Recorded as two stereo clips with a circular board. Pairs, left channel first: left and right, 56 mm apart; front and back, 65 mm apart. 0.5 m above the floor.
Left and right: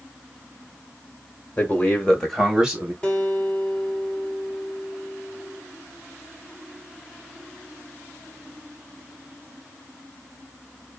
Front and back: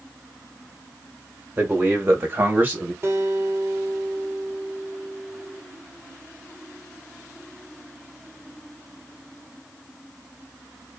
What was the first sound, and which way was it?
A man speaking, 125° left.